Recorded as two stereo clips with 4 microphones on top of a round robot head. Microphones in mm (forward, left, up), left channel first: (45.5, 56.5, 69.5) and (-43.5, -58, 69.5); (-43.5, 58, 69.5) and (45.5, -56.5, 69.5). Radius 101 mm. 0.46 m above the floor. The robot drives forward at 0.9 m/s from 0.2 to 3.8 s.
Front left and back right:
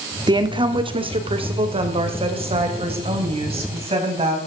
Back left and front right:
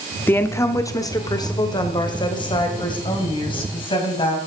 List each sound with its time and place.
0.3 s a woman speaking: 165° right, 1.4 m; by 4.4 s 175° right, 4 m